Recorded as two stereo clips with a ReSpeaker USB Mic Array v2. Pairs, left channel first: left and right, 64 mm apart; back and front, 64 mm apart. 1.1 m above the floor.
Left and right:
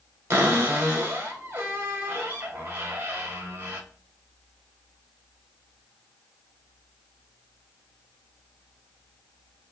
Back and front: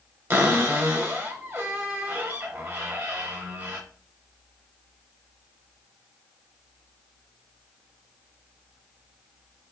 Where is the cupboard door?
40° right, 1.2 m.